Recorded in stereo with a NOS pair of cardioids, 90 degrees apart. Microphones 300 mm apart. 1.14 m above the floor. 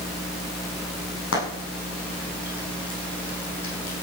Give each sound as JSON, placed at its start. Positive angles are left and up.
{"t": 1.3, "sound": "frying", "azimuth_deg": 45, "distance_m": 9.0}